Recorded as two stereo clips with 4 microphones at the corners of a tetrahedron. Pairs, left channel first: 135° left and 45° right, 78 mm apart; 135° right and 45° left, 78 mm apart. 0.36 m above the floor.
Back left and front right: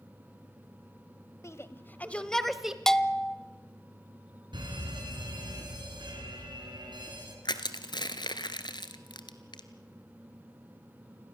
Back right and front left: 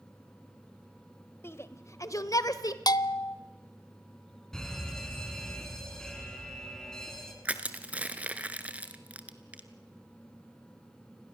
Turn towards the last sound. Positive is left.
turn(degrees=120)